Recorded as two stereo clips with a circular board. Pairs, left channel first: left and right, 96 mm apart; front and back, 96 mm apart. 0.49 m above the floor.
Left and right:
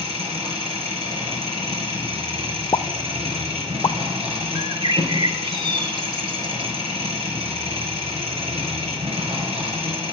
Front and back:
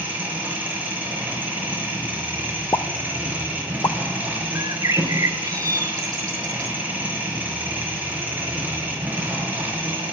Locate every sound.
0.0 s an engine running: 105° right, 4.5 m
2.7 s a pop: 50° left, 0.6 m
4.5 s a bird: 125° right, 0.7 m